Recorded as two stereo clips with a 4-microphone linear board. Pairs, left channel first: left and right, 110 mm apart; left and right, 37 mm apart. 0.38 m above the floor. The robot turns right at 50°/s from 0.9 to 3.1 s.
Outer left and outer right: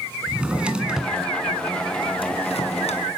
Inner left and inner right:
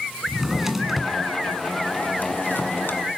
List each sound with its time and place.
0.3 s a drawer: 10° right (ahead or behind), 2 m; by 3.0 s 75° left (ahead or behind), 2 m